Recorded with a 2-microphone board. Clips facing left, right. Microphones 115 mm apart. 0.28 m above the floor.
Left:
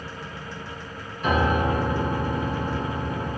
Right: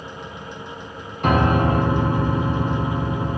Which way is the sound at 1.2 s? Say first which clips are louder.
Right 4 dB; 65° right (ahead or behind).